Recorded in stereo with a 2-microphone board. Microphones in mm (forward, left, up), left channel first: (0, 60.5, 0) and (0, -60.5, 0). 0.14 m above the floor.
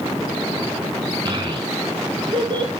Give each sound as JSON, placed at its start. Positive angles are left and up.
{"t": 1.2, "sound": "a child speaking", "side_deg": -35, "distance_m": 1.2}